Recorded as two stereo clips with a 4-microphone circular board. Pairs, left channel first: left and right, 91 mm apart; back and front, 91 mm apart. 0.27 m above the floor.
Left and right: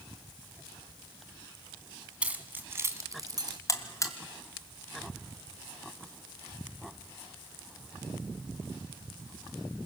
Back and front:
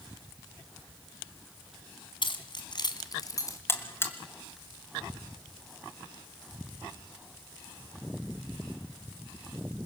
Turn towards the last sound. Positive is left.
turn(degrees=125)